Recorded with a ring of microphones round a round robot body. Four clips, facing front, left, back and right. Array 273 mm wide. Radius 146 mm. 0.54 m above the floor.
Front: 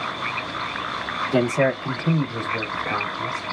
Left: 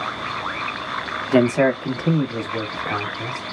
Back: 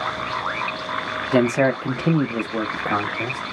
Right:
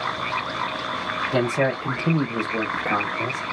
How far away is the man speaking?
About 0.7 m.